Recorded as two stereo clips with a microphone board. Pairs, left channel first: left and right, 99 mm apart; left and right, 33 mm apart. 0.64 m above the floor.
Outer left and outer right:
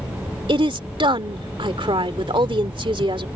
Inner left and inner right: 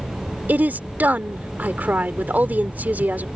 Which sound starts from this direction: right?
A woman speaking, at 0.5 s.